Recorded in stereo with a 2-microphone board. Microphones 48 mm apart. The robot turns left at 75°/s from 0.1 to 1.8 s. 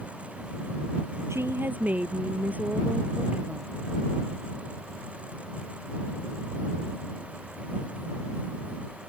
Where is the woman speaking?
110° right; by 3.7 s 145° right.